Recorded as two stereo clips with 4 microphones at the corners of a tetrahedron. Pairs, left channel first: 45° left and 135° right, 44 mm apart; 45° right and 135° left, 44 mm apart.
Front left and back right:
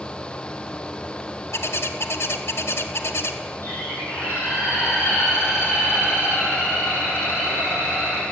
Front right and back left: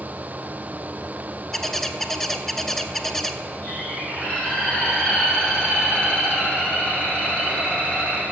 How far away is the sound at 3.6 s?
About 4 m.